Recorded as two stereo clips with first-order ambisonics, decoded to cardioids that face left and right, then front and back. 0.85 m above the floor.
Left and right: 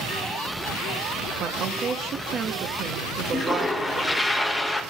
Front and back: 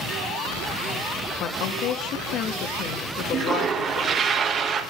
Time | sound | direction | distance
1.4 | a woman speaking | 35° right | 1.0 m
3.3 | a toilet flushing | 165° left | 0.9 m